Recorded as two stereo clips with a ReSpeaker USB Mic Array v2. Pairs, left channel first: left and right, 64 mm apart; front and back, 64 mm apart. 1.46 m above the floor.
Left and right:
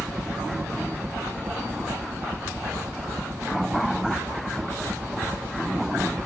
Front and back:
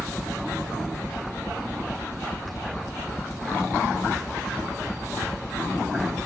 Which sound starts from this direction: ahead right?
A helicopter, at 0.0 s.